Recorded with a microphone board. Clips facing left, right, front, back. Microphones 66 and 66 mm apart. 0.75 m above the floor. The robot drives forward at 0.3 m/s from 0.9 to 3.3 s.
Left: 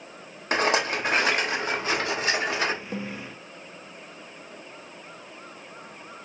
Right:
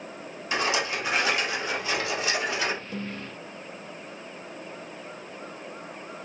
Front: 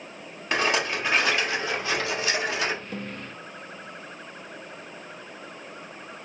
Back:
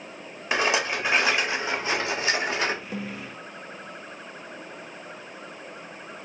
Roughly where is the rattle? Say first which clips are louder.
Left 3 dB, even; left.